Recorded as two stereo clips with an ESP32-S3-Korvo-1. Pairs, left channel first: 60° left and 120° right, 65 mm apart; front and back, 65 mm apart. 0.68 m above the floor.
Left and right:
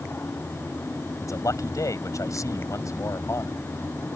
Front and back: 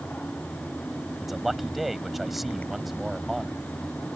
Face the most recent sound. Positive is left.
turn(degrees=95)